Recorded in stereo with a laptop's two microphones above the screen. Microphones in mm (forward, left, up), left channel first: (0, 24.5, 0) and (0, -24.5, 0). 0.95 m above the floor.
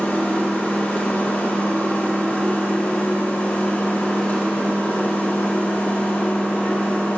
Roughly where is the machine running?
Left.